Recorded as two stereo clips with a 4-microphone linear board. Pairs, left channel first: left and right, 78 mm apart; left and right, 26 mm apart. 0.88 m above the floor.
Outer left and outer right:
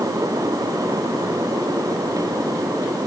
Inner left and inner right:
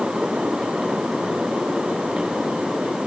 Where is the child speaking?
No child speaking in this recording.